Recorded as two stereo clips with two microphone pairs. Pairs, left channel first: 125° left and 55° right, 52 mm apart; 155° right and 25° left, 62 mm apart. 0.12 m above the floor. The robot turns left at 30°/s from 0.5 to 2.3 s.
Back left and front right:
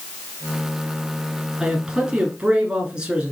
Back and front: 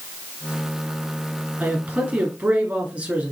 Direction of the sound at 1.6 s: 15° left.